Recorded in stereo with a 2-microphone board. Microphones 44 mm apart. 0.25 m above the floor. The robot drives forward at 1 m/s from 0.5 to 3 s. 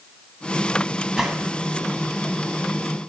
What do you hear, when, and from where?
1.2 s a gunshot: 5° right (ahead or behind), 1.1 m